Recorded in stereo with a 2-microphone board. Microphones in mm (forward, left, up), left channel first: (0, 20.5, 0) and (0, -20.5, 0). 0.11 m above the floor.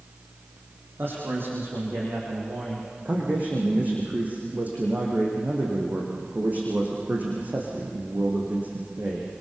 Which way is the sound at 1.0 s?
55° right (ahead or behind).